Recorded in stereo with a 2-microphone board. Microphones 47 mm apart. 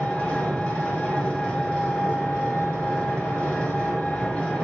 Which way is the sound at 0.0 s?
20° left (ahead or behind).